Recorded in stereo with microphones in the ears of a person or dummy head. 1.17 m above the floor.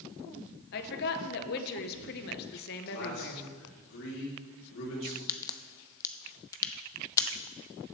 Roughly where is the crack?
Centre.